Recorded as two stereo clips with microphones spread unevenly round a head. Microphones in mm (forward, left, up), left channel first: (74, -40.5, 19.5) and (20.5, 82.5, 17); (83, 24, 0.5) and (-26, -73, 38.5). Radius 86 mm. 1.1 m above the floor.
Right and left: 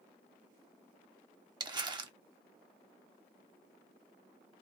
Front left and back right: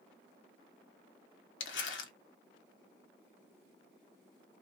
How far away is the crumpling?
About 1.3 m.